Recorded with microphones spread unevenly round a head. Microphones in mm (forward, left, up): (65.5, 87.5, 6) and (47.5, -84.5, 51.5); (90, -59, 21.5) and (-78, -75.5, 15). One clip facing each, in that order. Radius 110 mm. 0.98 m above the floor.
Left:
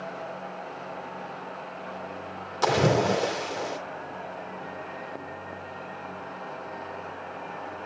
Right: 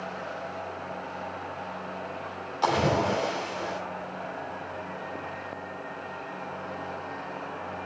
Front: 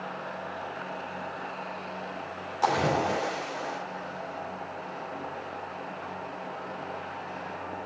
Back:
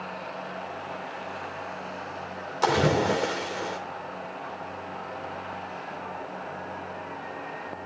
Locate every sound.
2.6 s a splash: 125° left, 3 m